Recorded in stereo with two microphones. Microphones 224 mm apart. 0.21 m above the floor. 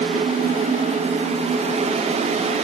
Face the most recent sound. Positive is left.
No sound to turn to.